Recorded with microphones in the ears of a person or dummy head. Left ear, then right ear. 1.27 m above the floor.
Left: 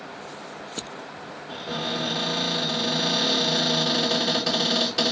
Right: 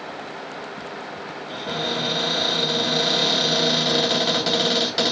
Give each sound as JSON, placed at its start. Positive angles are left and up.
{"t": 1.5, "sound": "a cupboard door", "side_deg": -15, "distance_m": 2.5}